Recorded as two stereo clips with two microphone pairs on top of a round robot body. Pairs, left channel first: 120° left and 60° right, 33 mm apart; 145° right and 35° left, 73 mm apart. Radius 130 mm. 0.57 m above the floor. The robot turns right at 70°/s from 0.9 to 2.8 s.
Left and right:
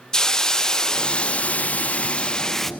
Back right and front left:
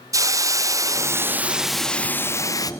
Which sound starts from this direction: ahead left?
A hiss, at 0.1 s.